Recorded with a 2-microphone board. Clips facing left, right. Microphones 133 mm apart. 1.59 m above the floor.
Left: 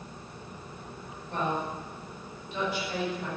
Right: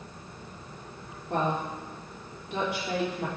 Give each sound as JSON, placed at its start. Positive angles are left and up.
{"t": 1.3, "sound": "a woman speaking", "side_deg": -80, "distance_m": 3.5}